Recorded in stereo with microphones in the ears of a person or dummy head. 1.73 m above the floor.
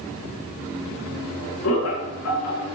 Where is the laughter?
85° left, 4 m.